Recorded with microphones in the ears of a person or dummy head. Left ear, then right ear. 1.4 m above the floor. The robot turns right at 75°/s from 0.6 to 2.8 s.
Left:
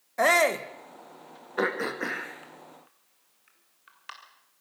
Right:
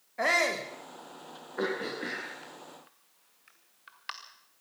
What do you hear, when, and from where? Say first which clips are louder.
0.2 s a shout: left 5 dB; 80° left, 1.6 m; by 0.7 s 75° left (ahead or behind), 1.6 m
1.6 s throat clearing: left 5 dB; 75° left (ahead or behind), 2 m; by 4.1 s 20° right (ahead or behind), 2 m